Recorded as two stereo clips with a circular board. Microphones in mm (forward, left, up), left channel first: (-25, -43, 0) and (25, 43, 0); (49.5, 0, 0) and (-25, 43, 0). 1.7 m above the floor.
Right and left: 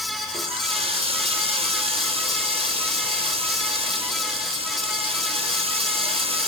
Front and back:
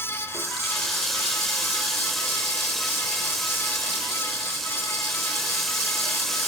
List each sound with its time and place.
0.3 s a running tap: 55° left, 5.5 m